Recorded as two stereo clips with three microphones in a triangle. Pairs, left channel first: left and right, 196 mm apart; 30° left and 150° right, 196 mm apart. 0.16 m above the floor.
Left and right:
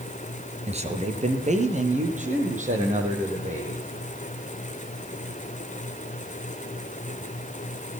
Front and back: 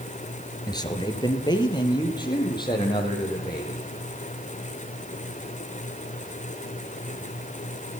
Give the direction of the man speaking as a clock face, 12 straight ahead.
1 o'clock.